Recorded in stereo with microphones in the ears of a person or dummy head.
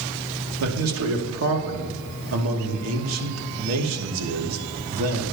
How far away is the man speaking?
About 2.5 m.